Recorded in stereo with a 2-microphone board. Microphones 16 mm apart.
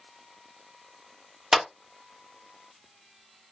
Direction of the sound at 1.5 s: 30° right (ahead or behind).